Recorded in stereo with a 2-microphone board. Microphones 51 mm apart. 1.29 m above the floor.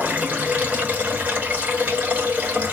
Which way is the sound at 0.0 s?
30° right (ahead or behind).